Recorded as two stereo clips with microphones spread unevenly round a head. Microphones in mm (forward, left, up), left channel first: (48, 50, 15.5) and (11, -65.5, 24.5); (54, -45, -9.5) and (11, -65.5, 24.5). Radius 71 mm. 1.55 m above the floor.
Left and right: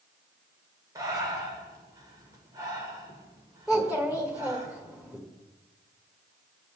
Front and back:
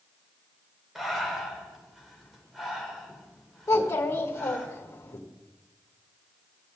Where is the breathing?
160° right, 1.5 m.